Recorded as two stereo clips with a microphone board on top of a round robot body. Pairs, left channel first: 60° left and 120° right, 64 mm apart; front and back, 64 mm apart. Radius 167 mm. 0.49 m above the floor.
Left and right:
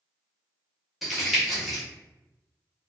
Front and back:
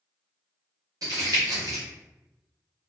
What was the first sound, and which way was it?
Crumpling, 150° left.